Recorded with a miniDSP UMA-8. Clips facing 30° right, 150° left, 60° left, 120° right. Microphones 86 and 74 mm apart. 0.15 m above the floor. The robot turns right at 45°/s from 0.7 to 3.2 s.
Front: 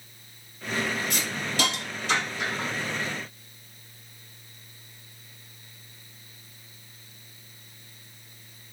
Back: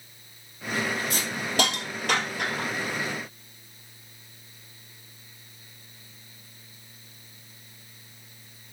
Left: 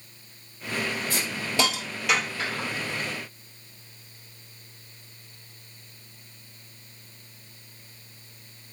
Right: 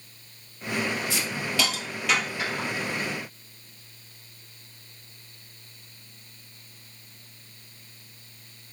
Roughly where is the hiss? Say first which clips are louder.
Back 2 dB, even; left.